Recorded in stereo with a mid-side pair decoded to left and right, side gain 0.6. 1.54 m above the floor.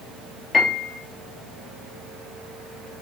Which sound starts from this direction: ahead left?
A piano, at 0.5 s.